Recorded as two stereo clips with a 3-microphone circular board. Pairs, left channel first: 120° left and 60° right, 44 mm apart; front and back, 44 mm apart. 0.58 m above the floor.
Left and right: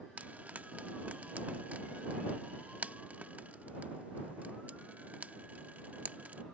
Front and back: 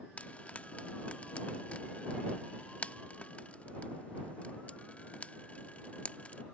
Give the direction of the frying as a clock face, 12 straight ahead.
1 o'clock.